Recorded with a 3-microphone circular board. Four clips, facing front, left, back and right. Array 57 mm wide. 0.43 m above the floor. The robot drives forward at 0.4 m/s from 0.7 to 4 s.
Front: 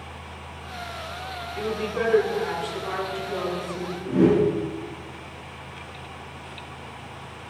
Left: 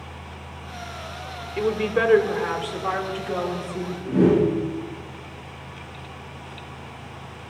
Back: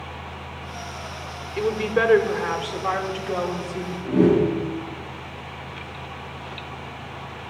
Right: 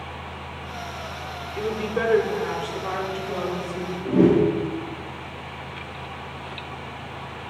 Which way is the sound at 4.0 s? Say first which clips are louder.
Right 1 dB, back 1 dB; 105° right.